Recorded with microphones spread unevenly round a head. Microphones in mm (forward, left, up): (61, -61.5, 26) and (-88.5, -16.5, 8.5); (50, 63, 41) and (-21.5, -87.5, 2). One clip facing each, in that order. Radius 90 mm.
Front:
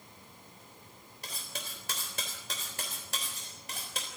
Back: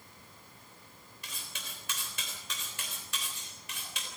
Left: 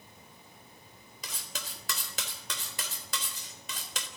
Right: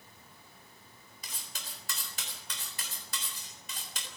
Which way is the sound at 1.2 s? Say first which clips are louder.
Front 5 dB, left 6 dB; 45° left.